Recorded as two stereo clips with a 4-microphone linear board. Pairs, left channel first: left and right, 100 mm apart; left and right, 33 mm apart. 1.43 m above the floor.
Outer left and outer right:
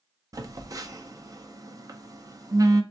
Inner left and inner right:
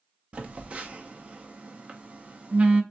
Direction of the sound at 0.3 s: 35° right (ahead or behind).